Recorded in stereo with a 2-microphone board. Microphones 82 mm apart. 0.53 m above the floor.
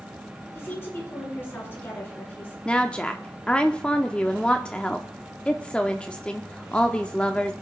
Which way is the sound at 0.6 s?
30° left (ahead or behind).